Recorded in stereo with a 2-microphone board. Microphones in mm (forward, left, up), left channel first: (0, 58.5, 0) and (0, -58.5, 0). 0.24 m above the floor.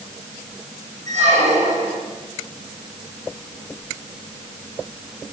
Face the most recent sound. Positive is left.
turn(degrees=-80)